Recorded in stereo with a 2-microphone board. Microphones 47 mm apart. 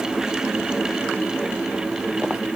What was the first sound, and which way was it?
Only background noise.